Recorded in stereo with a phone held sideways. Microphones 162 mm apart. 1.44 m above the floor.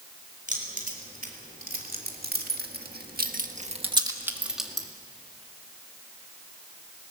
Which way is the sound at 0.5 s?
55° right (ahead or behind).